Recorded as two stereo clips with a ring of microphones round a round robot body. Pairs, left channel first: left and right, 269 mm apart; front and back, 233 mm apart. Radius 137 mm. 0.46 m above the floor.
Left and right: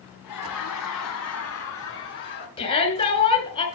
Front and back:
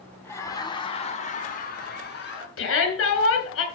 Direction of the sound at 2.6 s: 20° left.